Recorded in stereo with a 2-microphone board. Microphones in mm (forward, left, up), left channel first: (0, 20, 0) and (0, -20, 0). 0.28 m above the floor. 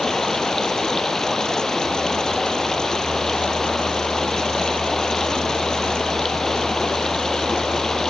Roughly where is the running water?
Centre.